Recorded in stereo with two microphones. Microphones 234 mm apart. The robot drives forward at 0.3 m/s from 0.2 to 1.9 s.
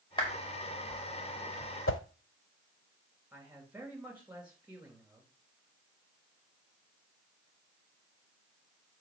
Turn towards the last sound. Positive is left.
turn(degrees=-5)  # may be behind; listen again after turning